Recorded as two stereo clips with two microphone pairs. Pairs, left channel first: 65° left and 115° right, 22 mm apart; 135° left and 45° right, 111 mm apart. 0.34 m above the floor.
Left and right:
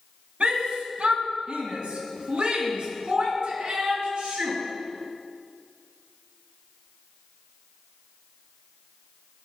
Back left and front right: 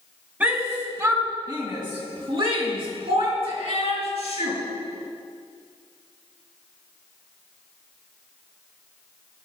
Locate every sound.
0.4 s a shout: 115° right, 2 m; by 4.6 s 65° right, 4.5 m